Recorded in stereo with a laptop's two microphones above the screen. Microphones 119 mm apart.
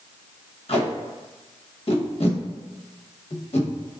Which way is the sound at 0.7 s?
55° left (ahead or behind).